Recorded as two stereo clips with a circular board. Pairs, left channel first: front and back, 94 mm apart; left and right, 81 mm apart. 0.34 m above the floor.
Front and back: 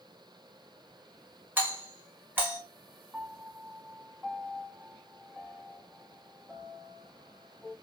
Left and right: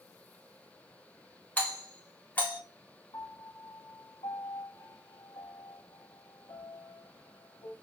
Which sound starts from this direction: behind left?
A doorbell, at 1.6 s.